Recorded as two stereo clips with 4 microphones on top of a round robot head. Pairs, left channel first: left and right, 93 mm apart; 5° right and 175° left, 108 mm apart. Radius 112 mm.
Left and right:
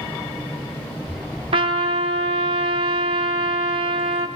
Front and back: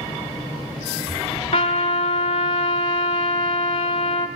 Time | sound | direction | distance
1.5 | a trumpet | 55° right | 1.1 m